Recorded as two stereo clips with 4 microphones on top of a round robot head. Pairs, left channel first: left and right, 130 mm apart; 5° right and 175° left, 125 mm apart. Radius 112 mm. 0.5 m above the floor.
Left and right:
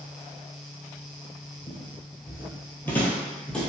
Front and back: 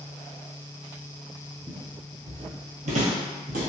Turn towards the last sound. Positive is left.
turn(degrees=175)